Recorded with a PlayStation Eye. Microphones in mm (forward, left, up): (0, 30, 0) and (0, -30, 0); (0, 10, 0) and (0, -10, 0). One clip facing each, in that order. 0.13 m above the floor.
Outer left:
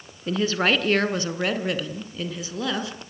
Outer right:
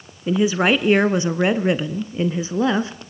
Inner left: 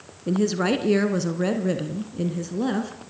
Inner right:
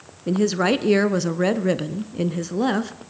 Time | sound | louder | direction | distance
0.3 | a woman speaking | outer right 5 dB, inner right 2 dB | 10° right (ahead or behind) | 1.5 m